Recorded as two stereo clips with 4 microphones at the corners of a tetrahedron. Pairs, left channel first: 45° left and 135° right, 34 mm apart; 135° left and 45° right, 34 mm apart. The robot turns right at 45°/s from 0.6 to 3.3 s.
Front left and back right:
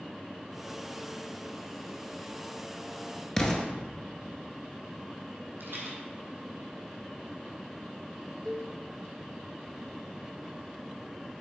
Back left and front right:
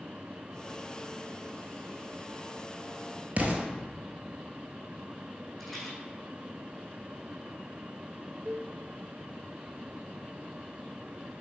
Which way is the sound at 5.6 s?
135° right.